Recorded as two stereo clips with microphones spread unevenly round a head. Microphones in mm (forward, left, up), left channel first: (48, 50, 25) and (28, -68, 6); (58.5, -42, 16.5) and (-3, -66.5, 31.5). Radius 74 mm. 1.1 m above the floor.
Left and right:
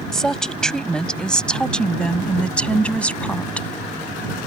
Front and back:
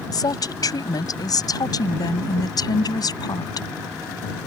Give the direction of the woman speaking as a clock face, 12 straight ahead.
12 o'clock.